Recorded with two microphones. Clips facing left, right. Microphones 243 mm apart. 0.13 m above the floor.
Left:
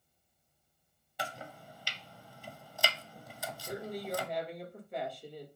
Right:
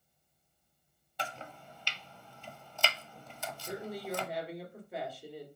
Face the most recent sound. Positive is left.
turn(degrees=-5)  # may be behind; listen again after turning